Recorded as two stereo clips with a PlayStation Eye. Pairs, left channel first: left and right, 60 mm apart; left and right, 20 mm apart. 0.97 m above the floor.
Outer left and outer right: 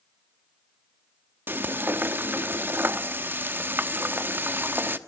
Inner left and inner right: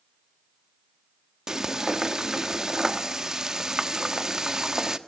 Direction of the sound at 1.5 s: 35° right (ahead or behind).